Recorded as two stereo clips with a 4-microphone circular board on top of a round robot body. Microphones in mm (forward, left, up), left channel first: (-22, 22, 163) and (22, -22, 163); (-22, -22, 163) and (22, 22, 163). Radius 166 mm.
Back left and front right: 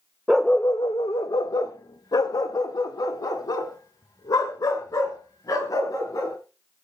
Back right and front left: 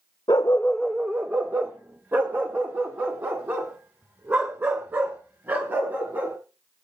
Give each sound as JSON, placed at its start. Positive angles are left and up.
{"t": 0.3, "sound": "a dog barking", "azimuth_deg": -120, "distance_m": 0.5}